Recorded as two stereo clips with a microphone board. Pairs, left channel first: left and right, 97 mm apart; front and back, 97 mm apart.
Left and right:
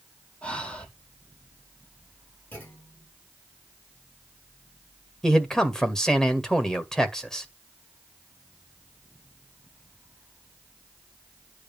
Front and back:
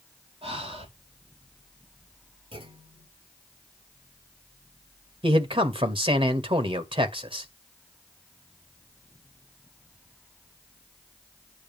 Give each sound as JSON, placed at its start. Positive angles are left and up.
{"t": 0.4, "sound": "breathing", "azimuth_deg": 170, "distance_m": 4.0}
{"t": 2.5, "sound": "a clunk", "azimuth_deg": 160, "distance_m": 6.5}
{"t": 5.2, "sound": "a man speaking", "azimuth_deg": 175, "distance_m": 2.0}